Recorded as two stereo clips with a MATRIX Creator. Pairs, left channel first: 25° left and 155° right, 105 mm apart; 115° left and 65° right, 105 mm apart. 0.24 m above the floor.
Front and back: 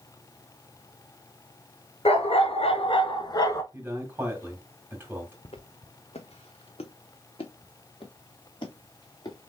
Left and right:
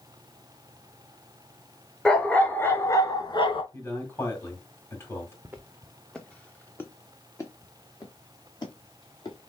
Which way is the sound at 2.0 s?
30° left.